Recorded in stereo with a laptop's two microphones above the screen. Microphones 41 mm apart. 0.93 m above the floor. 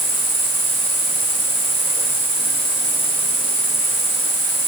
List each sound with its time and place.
0.0 s an insect: 60° left (ahead or behind), 5 m